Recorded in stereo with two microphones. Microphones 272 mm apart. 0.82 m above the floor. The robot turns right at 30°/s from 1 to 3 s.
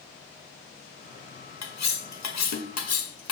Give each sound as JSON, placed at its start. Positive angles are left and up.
{"t": 1.6, "sound": "cutlery clinking", "side_deg": 75, "distance_m": 0.6}